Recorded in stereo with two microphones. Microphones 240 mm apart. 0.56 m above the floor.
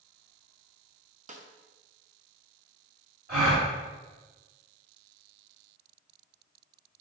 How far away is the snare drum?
About 0.5 m.